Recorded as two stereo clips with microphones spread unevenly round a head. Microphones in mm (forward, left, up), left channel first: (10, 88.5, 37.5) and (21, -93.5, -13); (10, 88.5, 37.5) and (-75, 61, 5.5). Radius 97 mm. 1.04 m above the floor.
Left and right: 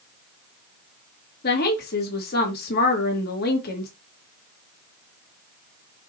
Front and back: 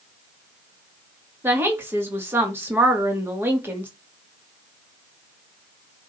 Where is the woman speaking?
140° left, 2.5 m.